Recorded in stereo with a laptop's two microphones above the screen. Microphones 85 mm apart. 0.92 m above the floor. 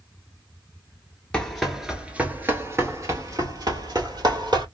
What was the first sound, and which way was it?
Running footsteps, 10° left (ahead or behind).